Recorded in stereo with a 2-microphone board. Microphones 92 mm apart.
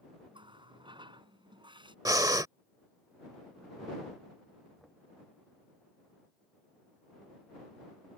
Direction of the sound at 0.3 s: 60° right (ahead or behind).